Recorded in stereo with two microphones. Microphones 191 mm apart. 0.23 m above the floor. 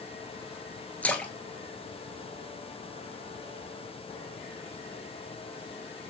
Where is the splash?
5° left (ahead or behind), 0.5 m.